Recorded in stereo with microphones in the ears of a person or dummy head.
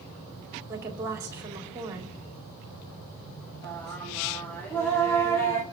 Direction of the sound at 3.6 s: 10° left (ahead or behind).